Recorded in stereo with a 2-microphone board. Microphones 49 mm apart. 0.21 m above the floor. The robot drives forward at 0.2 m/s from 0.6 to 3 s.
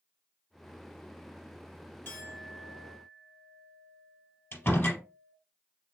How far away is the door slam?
About 3 m.